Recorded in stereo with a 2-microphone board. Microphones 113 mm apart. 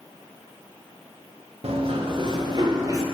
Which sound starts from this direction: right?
Running footsteps, at 1.6 s.